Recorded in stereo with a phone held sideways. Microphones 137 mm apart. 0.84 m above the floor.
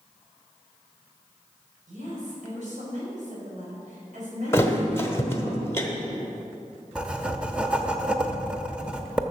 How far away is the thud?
About 1.2 m.